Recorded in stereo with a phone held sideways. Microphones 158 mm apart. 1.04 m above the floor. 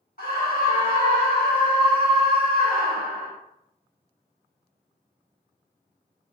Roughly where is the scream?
Left.